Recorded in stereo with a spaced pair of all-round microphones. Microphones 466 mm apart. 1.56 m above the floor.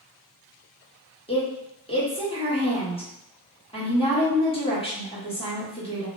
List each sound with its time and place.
1.3 s a woman speaking: 15° left (ahead or behind), 1.1 m